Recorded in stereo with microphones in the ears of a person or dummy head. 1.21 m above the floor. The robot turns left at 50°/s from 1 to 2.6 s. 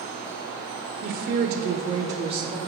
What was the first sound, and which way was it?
A woman speaking, 80° right.